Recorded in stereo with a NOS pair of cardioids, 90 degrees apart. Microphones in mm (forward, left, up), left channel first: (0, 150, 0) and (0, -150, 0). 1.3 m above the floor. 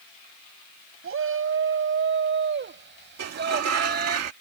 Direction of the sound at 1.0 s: 45° right.